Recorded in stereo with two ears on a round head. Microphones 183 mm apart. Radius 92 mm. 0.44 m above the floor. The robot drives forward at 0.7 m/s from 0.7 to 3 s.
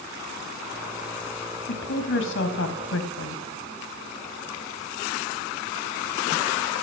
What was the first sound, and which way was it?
A woman speaking, 55° left (ahead or behind).